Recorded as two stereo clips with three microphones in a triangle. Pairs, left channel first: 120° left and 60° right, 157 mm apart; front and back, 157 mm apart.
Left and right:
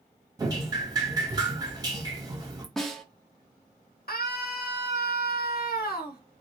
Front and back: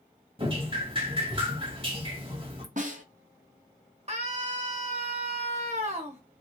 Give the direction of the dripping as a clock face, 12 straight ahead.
4 o'clock.